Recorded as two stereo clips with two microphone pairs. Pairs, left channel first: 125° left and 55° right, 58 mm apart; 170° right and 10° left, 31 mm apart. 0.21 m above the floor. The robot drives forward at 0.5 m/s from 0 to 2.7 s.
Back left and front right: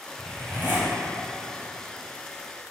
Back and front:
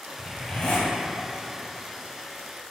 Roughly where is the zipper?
Right.